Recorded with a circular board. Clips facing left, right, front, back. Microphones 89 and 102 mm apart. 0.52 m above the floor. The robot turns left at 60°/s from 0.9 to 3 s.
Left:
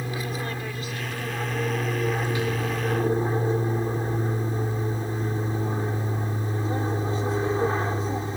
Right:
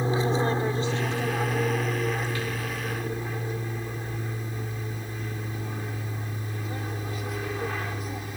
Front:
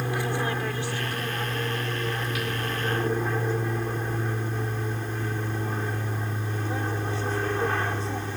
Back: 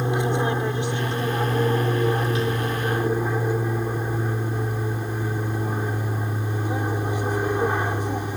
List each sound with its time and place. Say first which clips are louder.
0.0 s an aircraft: right 6 dB, back 5 dB; 125° right; by 8.4 s 120° left